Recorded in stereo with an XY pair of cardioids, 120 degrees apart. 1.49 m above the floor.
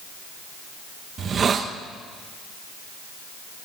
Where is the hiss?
40° right, 1.7 m.